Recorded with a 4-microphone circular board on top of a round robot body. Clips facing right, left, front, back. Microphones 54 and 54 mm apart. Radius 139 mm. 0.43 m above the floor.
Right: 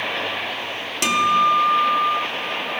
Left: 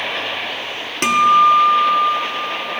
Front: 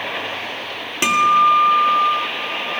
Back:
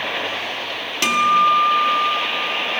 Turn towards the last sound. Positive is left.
turn(degrees=65)